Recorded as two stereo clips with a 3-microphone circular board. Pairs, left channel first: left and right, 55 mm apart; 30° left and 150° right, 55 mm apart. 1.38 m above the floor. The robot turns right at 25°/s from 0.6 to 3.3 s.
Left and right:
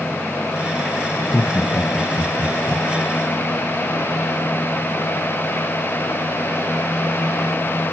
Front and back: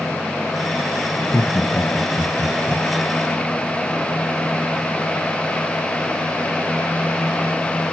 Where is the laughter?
65° left, 0.7 m; by 2.8 s 105° left, 0.7 m.